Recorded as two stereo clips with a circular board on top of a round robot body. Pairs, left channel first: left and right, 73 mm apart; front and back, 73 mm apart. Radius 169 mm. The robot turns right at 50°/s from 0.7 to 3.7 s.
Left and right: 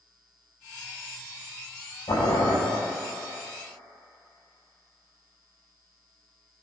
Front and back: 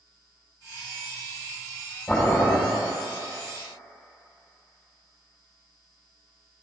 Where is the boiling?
70° left, 5.5 m; by 2.6 s 95° left, 5.5 m.